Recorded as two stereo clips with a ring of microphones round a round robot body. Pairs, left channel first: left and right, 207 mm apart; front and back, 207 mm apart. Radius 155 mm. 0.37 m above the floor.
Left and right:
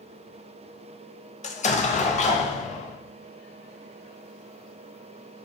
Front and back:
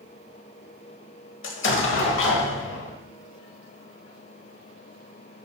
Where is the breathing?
I don't hear breathing.